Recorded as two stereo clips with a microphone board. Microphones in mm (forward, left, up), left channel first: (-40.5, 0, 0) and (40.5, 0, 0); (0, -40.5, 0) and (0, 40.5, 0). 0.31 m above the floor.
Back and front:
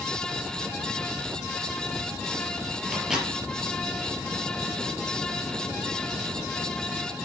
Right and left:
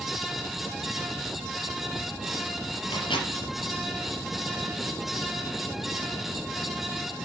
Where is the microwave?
85° right, 4.5 m.